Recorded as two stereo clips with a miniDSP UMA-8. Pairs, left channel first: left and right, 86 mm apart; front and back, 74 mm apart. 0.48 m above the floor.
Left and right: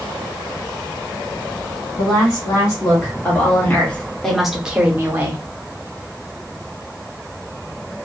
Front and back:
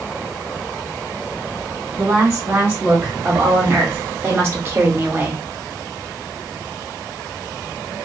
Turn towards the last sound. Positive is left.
turn(degrees=-125)